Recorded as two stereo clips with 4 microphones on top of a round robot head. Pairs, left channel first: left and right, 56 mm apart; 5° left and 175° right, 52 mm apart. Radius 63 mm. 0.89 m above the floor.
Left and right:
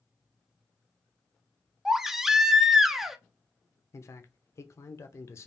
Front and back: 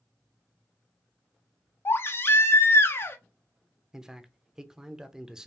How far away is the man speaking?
About 0.6 m.